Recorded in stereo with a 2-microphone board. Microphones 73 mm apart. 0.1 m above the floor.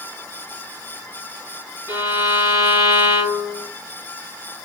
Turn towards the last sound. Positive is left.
turn(degrees=-45)  # may be behind; listen again after turning